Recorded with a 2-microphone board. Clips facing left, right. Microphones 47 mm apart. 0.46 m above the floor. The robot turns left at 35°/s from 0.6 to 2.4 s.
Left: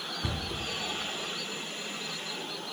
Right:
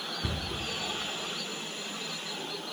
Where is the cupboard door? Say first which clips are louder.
Left 1 dB; centre (ahead or behind), 1.3 m.